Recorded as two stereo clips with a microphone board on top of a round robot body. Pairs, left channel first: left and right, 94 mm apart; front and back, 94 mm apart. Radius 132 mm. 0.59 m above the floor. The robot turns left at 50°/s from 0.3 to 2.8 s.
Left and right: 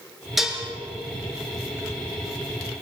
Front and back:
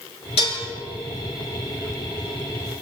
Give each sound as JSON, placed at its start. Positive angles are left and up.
{"t": 0.4, "sound": "dishes clattering", "azimuth_deg": -5, "distance_m": 6.5}